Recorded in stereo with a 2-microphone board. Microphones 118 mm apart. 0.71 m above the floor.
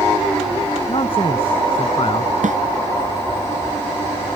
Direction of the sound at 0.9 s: 50° left (ahead or behind).